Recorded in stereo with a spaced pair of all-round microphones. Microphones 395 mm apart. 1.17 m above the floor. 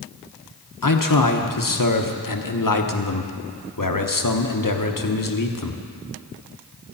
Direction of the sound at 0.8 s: 55° left (ahead or behind).